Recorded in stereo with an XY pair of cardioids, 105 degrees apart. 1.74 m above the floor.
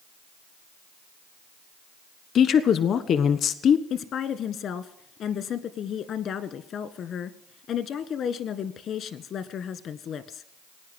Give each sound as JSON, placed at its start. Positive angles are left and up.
{"t": 2.4, "sound": "a woman speaking", "azimuth_deg": 60, "distance_m": 1.2}
{"t": 3.9, "sound": "a woman speaking", "azimuth_deg": 65, "distance_m": 1.4}